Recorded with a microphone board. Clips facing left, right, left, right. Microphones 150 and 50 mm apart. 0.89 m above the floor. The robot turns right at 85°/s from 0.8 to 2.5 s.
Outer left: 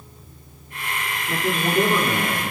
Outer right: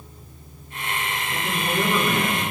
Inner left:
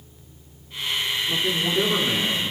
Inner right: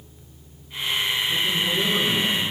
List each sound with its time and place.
1.3 s a man speaking: 95° left, 3 m; by 2.4 s 170° right, 3 m